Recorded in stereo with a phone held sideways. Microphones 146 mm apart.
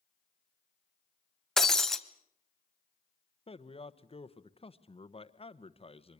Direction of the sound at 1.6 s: 5° left (ahead or behind).